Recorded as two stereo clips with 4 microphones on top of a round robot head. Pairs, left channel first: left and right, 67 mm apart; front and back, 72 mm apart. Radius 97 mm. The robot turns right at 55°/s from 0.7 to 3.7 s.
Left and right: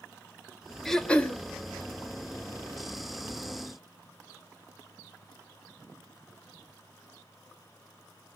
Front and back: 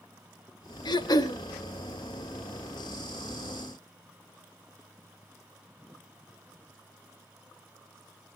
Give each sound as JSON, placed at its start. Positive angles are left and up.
{"t": 0.8, "sound": "throat clearing", "azimuth_deg": 5, "distance_m": 1.7}